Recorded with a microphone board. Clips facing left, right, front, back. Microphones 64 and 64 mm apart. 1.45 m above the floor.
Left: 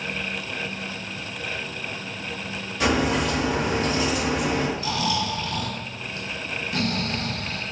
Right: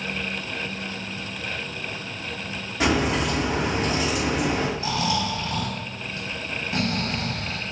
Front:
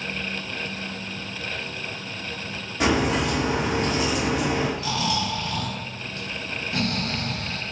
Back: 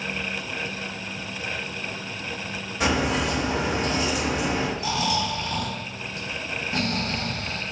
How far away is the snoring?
About 0.9 m.